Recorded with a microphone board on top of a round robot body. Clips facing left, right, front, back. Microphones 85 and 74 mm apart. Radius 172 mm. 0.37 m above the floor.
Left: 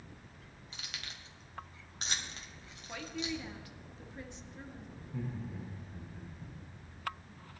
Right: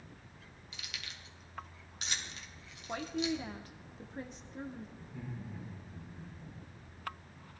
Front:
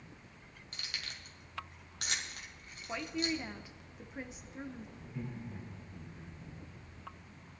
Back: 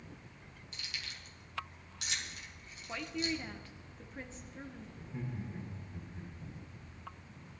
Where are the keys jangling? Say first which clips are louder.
Left 1 dB, front 1 dB; 40° left, 2.5 m.